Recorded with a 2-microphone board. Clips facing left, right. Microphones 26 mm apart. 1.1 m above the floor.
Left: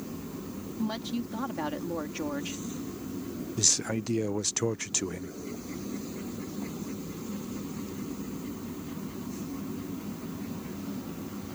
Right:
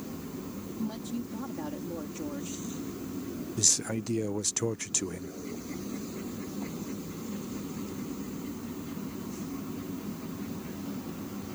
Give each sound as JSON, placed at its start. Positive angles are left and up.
{"t": 0.8, "sound": "a woman speaking", "side_deg": 55}
{"t": 3.6, "sound": "a man speaking", "side_deg": 10}